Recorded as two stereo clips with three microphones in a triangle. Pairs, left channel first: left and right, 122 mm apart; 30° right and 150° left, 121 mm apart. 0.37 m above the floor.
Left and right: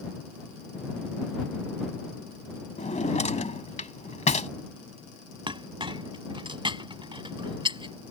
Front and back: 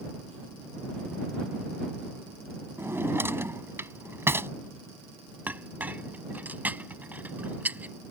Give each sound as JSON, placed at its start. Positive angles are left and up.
{"t": 2.8, "sound": "a drawer", "azimuth_deg": 80}
{"t": 5.5, "sound": "a clink", "azimuth_deg": -135}